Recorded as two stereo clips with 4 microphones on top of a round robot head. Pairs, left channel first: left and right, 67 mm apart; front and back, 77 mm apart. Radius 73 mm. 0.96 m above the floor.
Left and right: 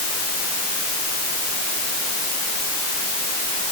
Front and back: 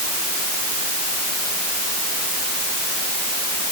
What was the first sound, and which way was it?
Only background noise.